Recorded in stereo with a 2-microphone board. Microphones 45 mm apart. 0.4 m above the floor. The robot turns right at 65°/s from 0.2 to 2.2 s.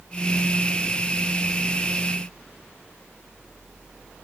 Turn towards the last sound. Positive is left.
No sound to turn to.